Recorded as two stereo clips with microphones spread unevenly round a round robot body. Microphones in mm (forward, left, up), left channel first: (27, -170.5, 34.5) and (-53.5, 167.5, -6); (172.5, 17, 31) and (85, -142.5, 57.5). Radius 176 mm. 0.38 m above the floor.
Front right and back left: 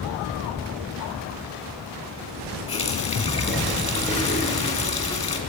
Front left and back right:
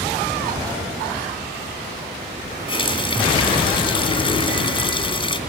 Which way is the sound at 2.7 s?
Straight ahead.